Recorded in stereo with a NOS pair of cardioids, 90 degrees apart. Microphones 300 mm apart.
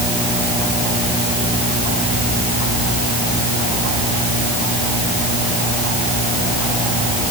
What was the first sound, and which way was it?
Only background noise.